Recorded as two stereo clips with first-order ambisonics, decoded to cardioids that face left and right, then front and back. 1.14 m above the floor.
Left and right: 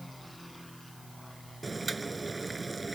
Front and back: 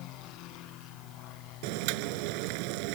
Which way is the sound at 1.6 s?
170° right.